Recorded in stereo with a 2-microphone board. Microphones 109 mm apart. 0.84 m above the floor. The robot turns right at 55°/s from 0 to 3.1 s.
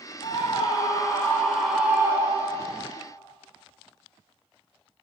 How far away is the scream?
About 3.5 m.